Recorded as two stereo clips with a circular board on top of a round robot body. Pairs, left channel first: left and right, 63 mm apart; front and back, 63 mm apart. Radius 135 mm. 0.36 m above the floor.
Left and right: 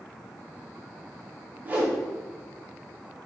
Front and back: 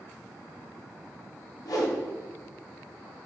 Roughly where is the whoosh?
Ahead right.